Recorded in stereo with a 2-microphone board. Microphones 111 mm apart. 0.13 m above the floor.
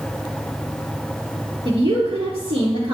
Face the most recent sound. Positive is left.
turn(degrees=-50)  # may be behind; listen again after turning